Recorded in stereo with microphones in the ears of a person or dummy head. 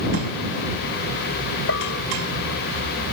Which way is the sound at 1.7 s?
75° left (ahead or behind).